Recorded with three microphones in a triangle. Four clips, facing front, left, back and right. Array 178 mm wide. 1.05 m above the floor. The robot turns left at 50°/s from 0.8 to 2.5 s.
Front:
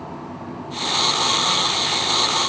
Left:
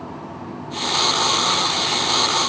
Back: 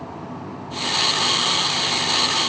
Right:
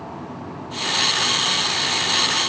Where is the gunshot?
I don't hear a gunshot.